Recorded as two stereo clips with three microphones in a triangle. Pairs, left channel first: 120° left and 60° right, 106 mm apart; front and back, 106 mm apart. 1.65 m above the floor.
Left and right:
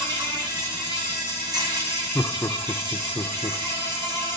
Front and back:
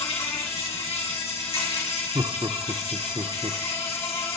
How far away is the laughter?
About 0.5 m.